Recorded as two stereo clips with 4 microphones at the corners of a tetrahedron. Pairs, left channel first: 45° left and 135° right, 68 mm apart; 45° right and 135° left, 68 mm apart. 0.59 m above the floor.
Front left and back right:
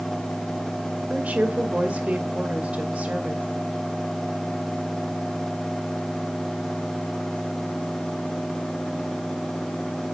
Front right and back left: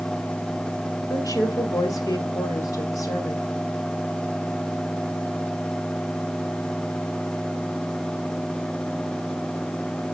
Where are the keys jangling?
I don't hear keys jangling.